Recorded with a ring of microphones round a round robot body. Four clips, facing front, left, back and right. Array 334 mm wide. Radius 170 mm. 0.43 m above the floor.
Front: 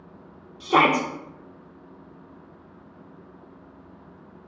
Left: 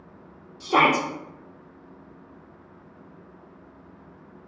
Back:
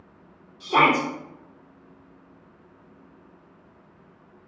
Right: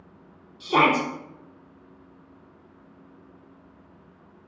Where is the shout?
20° left, 0.8 m.